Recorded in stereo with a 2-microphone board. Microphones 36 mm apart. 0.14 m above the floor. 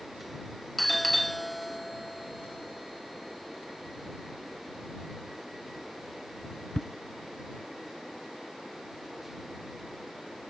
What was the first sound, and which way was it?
A doorbell, centre (ahead or behind).